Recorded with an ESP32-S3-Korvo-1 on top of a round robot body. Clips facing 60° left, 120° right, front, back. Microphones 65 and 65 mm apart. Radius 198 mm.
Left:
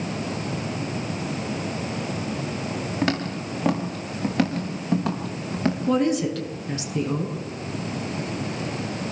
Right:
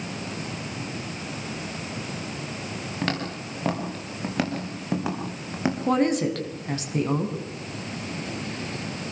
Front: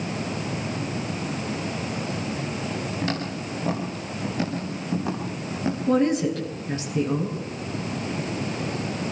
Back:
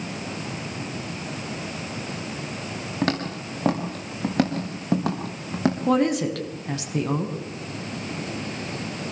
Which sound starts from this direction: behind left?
Footsteps, at 3.0 s.